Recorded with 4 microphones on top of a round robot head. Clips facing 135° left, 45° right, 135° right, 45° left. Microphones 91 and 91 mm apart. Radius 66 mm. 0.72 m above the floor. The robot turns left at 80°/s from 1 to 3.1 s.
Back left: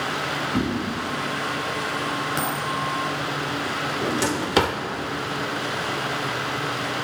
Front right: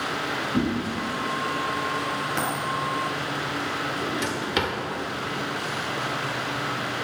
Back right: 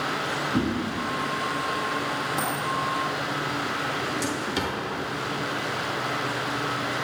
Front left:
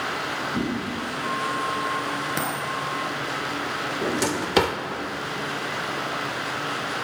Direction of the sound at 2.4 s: 55° left.